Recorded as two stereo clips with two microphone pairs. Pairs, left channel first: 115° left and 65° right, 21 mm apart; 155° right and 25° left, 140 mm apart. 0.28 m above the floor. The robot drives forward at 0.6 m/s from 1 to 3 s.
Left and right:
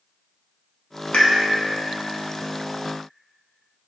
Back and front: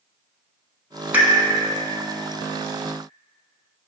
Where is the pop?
100° left, 0.7 m; by 1.3 s 110° left, 0.7 m.